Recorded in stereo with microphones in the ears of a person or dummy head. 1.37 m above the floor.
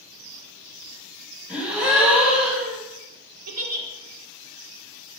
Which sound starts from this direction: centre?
A gasp, at 1.5 s.